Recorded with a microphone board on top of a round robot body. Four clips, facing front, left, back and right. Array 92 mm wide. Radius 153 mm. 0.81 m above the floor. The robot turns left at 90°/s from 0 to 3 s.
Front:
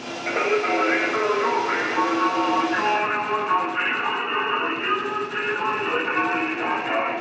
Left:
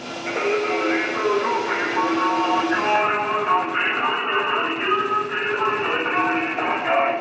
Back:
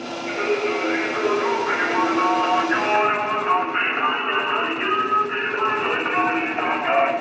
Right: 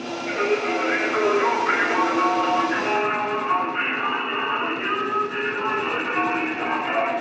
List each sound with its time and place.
0.3 s singing: 30° left, 4.5 m; by 7.1 s 145° left, 4.5 m